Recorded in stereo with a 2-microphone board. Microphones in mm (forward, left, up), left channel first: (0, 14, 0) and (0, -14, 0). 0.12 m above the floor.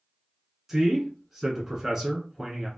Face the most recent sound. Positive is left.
turn(degrees=-15)  # may be behind; listen again after turning